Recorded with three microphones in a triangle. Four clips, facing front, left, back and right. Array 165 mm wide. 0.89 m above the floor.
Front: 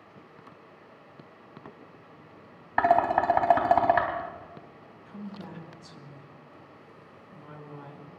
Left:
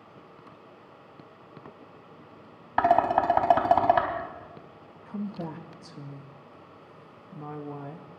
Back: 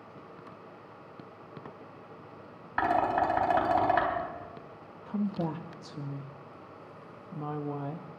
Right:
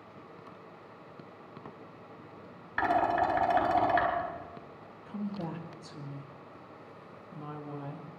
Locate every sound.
2.8 s dishes clattering: 45° left, 3.5 m
5.1 s a woman speaking: 170° left, 0.9 m